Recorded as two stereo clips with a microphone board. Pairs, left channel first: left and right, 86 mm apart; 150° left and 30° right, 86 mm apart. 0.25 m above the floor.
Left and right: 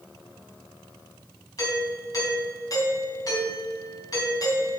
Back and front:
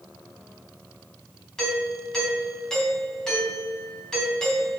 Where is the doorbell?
70° left, 3 m.